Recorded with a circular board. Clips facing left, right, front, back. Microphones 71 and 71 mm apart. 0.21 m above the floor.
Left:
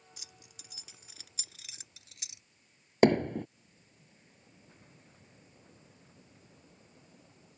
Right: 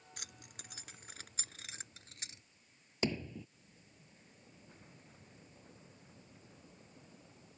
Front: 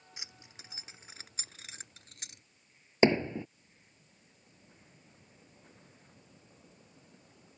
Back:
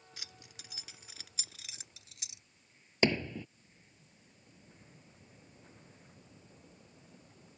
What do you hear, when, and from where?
0.2 s keys jangling: 65° right; by 2.4 s 40° right
3.0 s hammering: 65° left